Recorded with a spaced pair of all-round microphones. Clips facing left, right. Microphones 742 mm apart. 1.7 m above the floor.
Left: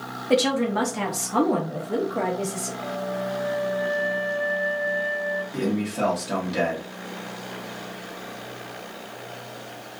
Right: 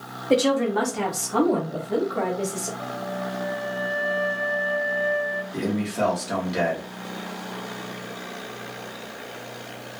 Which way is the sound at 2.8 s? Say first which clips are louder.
Left 2 dB; 40° left (ahead or behind).